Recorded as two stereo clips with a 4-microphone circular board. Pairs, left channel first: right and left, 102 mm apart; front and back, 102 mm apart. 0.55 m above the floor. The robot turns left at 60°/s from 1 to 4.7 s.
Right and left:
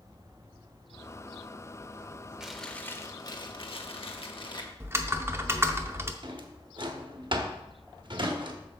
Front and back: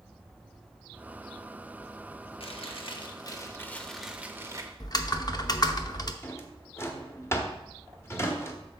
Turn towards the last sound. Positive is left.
turn(degrees=60)